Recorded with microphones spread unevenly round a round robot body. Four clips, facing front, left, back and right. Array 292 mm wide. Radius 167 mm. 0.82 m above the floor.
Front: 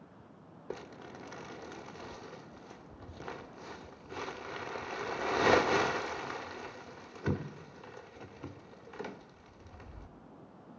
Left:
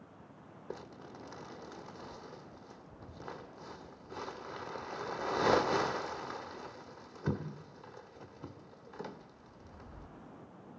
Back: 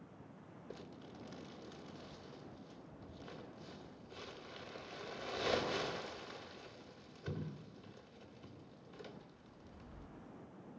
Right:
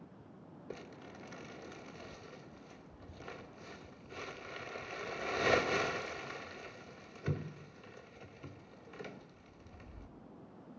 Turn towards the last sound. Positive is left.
turn(degrees=30)